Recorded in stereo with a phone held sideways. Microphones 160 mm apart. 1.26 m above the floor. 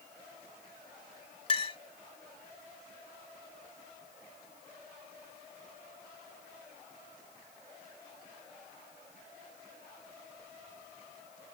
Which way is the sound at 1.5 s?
35° left (ahead or behind).